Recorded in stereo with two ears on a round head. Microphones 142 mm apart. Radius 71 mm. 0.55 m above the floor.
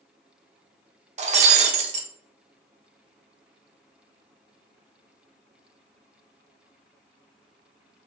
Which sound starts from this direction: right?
Breaking glass, at 1.2 s.